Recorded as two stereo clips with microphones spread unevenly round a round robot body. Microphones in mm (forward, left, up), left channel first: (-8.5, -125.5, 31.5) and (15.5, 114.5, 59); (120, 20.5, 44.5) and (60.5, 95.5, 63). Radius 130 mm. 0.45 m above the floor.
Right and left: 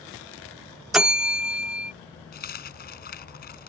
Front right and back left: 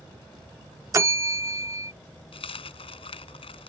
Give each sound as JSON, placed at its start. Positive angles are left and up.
{"t": 0.9, "sound": "a bell", "azimuth_deg": 180}
{"t": 2.3, "sound": "a dropped coin", "azimuth_deg": -45}